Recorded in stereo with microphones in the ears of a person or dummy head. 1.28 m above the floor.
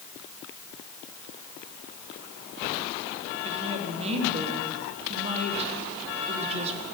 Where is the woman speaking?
30° right (ahead or behind), 2.0 m.